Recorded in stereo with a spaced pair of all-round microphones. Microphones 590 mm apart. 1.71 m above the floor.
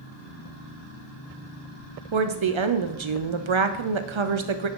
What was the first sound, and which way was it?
A woman speaking, 55° right (ahead or behind).